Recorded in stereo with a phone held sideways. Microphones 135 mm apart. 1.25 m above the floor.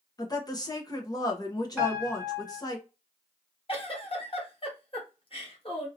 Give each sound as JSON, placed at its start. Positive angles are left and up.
{"t": 0.2, "sound": "a woman speaking", "side_deg": 30, "distance_m": 1.0}
{"t": 1.8, "sound": "a piano", "side_deg": -10, "distance_m": 1.9}
{"t": 3.7, "sound": "a giggle", "side_deg": 45, "distance_m": 1.0}